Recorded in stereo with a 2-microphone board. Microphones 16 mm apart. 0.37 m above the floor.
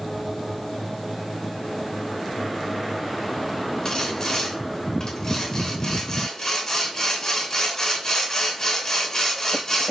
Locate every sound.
3.9 s sawing: 40° left (ahead or behind), 3 m